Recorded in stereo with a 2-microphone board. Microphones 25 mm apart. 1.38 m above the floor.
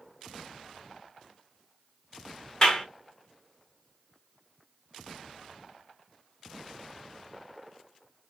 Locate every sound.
2.6 s a clap: 35° left (ahead or behind), 1.2 m